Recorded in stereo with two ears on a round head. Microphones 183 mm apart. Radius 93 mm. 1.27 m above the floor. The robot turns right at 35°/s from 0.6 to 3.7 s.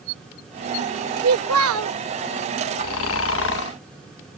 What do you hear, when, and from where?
1.2 s a child speaking: 85° right; by 2.0 s 65° right (ahead or behind)
2.8 s snoring: 90° left; by 3.8 s 120° left